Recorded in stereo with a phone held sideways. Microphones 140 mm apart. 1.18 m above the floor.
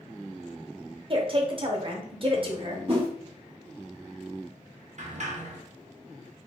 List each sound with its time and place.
1.1 s a woman speaking: 40° right (ahead or behind), 0.8 m
2.9 s a whoosh: 50° right (ahead or behind), 1.1 m
5.0 s a sliding door: 65° right (ahead or behind), 0.7 m